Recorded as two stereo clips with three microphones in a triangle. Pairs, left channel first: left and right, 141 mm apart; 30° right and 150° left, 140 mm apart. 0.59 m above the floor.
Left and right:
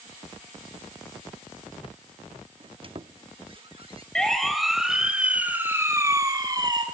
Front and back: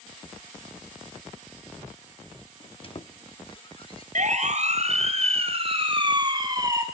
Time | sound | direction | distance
2.6 | a squeak | 60° right | 0.7 m
4.2 | a siren | 175° left | 3.5 m